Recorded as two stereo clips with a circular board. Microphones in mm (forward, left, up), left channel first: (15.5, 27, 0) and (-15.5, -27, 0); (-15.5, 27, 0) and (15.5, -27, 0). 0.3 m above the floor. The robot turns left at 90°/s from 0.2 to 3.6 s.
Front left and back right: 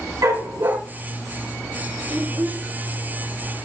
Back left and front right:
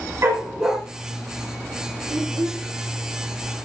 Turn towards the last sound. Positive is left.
turn(degrees=175)